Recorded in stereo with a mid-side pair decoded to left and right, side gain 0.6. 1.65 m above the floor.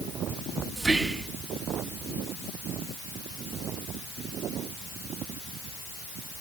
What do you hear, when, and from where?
0.8 s whispering: 25° right, 2 m